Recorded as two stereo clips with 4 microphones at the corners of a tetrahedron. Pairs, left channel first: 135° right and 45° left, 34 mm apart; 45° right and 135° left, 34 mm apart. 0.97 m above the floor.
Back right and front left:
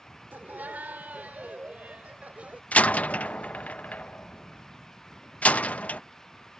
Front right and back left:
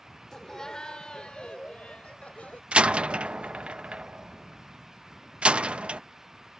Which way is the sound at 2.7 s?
175° right.